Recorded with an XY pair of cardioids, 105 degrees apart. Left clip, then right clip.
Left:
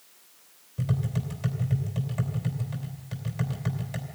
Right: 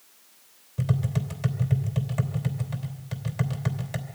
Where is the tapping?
25° right, 3 m.